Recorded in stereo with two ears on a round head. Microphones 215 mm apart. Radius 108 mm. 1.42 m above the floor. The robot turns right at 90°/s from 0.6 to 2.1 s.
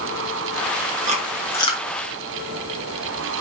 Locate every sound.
1.1 s chewing: 30° right (ahead or behind), 1.6 m; by 1.8 s 40° left (ahead or behind), 1.6 m